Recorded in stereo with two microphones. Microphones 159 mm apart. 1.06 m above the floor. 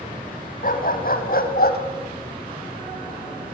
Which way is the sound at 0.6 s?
60° left (ahead or behind).